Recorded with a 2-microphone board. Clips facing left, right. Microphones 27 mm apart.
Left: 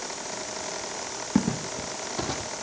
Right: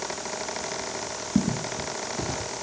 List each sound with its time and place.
1.4 s footsteps: 65° left (ahead or behind), 1.7 m; by 2.5 s 20° left (ahead or behind), 1.3 m